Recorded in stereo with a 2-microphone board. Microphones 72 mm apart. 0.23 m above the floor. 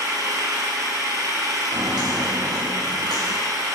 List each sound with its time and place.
0.0 s an engine running: 55° right (ahead or behind), 1.7 m
1.7 s footsteps: 75° right (ahead or behind), 2 m; by 3.4 s 80° right, 1.1 m